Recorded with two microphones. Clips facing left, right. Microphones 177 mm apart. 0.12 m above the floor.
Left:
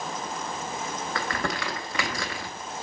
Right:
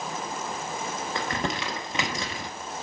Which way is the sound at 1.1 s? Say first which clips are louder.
Even; 20° right (ahead or behind).